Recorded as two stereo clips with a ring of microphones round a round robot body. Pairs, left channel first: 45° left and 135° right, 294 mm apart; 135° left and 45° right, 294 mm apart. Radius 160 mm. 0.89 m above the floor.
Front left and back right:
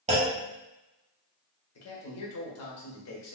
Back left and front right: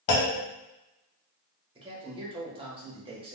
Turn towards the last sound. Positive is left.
turn(degrees=25)